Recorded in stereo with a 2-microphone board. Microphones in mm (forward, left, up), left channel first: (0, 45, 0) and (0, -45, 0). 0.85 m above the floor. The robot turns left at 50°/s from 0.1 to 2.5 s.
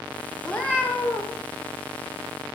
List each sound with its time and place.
0.4 s a cat meowing: 170° left, 0.5 m; by 1.4 s 120° left, 0.5 m